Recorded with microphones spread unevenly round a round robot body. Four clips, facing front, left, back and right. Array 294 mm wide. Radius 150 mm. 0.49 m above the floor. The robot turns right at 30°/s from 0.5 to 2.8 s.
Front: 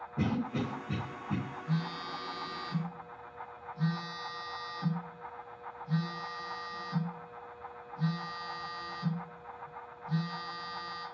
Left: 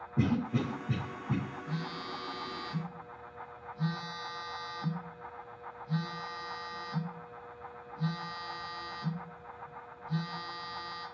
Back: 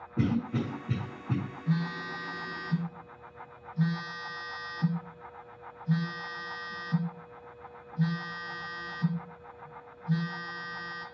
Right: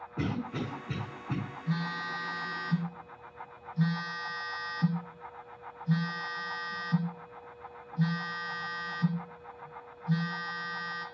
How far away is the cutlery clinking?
No cutlery clinking in this recording.